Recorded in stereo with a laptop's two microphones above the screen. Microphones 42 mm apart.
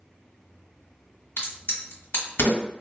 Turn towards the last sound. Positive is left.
turn(degrees=70)  # may be behind; listen again after turning